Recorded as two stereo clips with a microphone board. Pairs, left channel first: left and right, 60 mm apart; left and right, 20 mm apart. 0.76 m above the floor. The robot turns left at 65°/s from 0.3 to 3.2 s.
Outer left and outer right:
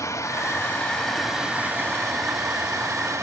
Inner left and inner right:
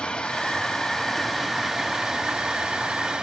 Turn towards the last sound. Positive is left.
turn(degrees=-130)